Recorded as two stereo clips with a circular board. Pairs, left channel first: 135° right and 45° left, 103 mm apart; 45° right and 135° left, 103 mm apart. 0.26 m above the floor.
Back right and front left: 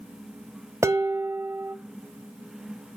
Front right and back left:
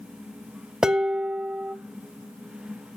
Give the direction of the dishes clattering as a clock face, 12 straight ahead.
10 o'clock.